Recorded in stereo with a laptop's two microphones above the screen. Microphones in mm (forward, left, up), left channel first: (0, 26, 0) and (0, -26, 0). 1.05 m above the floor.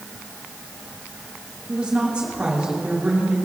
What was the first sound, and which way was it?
A woman speaking, 25° right (ahead or behind).